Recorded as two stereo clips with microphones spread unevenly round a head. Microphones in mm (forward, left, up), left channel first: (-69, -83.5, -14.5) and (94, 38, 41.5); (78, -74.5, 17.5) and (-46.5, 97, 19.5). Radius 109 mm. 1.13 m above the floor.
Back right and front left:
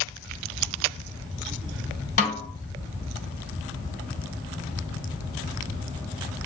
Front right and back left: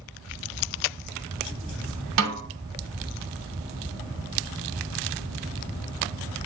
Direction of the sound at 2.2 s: 155° left.